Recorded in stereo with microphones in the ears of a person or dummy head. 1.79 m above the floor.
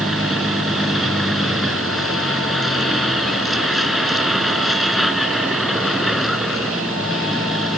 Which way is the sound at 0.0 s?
5° left (ahead or behind).